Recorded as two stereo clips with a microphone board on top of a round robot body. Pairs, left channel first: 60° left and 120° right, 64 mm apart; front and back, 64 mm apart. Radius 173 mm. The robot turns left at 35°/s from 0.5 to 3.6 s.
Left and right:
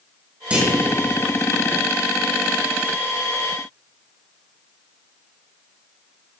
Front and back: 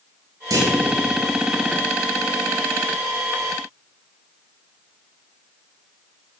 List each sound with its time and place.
0.5 s a clunk: 170° left, 4 m; by 0.8 s 160° left, 4 m